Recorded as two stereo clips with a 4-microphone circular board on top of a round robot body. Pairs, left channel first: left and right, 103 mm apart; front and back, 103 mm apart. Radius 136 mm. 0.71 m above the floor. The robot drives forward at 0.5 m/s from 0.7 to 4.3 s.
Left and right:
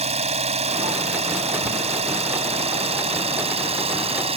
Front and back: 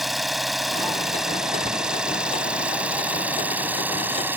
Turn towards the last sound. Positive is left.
turn(degrees=-110)